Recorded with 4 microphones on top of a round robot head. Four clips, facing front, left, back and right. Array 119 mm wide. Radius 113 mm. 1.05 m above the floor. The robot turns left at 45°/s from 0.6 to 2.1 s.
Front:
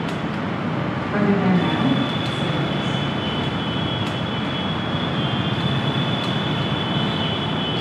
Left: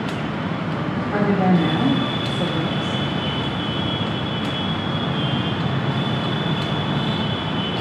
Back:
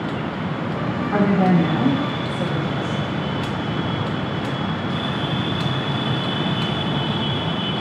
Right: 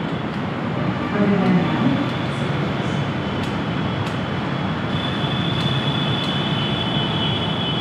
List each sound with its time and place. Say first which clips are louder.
1.1 s a woman speaking: even, back 2 dB; 170° left, 1.8 m; by 3.0 s 125° left, 1.8 m